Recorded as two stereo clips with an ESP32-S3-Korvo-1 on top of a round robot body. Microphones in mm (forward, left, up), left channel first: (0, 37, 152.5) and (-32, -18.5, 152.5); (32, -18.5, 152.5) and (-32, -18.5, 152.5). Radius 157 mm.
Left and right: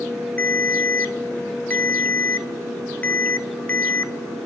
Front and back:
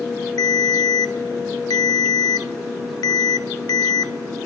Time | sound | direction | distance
0.4 | a ringtone | 5° right | 0.6 m